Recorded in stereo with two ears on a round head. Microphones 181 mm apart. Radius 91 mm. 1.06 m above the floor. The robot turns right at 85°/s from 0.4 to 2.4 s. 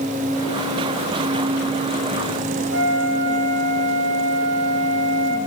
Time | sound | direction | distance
2.7 | a flute | 70° right (ahead or behind) | 1.5 m